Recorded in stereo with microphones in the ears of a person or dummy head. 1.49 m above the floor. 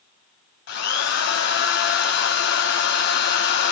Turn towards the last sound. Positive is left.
turn(degrees=65)  # may be behind; listen again after turning